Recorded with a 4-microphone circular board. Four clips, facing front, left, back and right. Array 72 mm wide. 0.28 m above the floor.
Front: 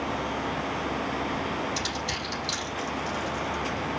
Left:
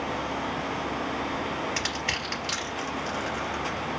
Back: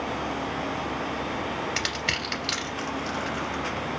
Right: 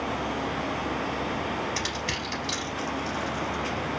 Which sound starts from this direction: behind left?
Crushing, at 1.8 s.